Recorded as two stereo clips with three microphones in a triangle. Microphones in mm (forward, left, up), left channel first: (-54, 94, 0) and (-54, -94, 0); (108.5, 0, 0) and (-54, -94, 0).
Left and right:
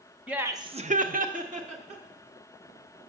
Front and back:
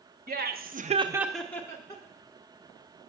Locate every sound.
0.3 s laughter: 175° right, 0.9 m; by 2.0 s 40° right, 1.3 m